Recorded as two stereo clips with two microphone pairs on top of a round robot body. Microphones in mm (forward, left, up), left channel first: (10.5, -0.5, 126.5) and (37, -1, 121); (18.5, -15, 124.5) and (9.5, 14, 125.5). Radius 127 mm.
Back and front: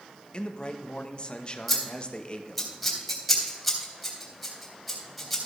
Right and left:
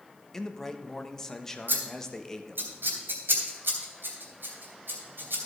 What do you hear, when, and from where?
0.3 s a man speaking: 135° right, 1.2 m
1.7 s scissors: 95° left, 2.5 m